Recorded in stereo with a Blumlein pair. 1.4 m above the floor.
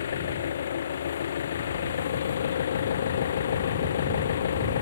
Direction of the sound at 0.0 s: 65° left.